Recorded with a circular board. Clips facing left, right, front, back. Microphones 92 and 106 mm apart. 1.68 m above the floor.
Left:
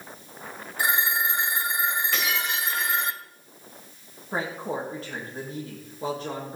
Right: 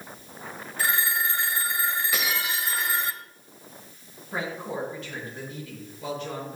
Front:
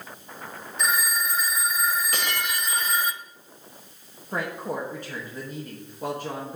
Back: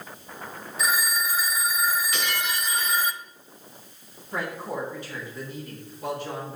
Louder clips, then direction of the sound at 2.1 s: Left 1 dB, even; 10° right.